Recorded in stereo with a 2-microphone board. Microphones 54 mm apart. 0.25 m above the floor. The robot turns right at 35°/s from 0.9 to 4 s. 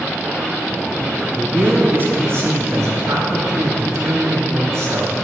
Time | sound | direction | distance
1.4 | a man speaking | 160° right | 4 m